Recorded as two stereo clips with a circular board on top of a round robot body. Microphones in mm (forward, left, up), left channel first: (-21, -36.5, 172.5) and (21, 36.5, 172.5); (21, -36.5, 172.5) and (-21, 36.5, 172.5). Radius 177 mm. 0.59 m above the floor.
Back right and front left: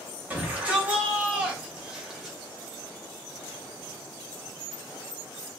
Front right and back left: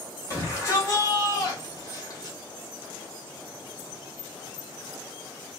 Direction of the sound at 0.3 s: 10° right.